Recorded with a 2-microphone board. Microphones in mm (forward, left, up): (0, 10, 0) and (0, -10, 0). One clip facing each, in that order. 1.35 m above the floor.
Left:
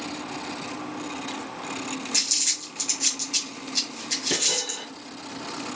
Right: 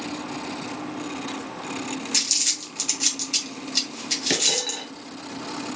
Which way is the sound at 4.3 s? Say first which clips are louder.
Right 3 dB; 50° right (ahead or behind).